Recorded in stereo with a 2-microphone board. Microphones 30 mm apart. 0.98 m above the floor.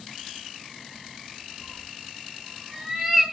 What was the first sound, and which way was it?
A cat meowing, 15° right (ahead or behind).